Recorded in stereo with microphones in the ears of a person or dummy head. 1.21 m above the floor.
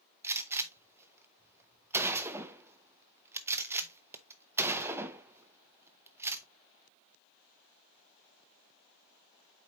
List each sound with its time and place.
0.2 s a gunshot: 15° right (ahead or behind), 0.7 m